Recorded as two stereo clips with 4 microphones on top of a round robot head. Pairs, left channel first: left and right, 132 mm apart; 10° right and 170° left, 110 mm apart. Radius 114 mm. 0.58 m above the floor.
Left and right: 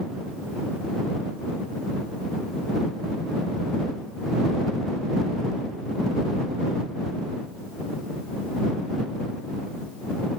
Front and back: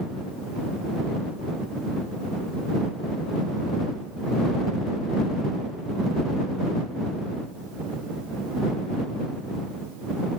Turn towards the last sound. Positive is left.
No sound to turn to.